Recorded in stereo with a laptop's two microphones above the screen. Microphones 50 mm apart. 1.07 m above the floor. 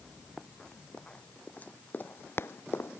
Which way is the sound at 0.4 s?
10° left (ahead or behind).